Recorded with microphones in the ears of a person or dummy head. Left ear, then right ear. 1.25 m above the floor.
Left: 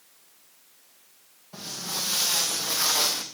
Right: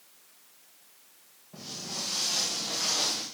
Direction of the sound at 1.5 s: 80° left.